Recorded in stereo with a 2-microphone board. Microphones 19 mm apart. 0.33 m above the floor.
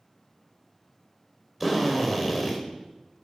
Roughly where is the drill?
Centre.